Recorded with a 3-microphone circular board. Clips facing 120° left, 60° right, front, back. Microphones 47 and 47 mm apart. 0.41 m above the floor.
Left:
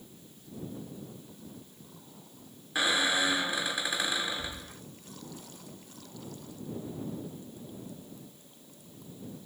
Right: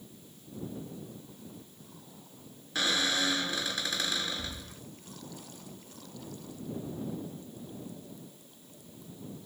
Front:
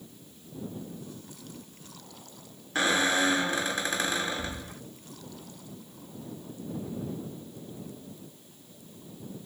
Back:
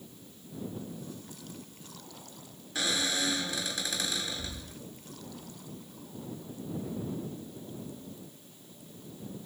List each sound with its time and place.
2.8 s a squeak: 50° left